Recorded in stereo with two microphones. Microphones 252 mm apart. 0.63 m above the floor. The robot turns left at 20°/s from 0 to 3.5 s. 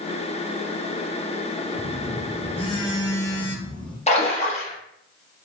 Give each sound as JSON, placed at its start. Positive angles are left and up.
{"t": 1.7, "sound": "a phone buzzing", "azimuth_deg": 40, "distance_m": 0.7}
{"t": 4.1, "sound": "a splash", "side_deg": 25, "distance_m": 0.8}